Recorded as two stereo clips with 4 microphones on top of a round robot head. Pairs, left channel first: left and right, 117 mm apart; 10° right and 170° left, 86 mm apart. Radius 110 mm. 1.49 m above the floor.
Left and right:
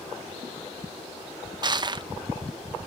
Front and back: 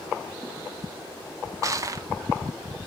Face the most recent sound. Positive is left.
turn(degrees=-140)